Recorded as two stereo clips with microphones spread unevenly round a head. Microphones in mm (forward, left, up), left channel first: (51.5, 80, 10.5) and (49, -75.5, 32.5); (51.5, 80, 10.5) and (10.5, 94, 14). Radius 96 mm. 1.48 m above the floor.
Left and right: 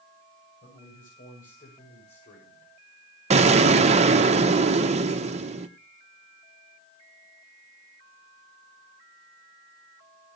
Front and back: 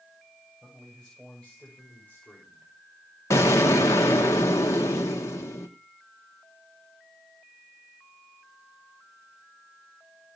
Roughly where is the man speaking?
Ahead left.